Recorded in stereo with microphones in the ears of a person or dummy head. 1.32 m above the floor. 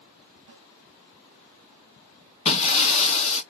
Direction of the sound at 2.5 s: 35° left (ahead or behind).